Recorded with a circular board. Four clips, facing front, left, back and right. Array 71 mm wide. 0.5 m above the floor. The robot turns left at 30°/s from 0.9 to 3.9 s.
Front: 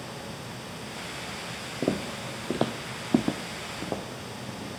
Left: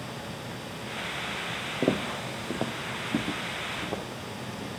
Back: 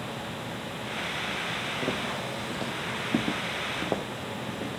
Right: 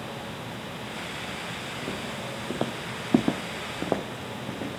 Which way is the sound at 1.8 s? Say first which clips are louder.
Left 9 dB, front 5 dB; 60° left.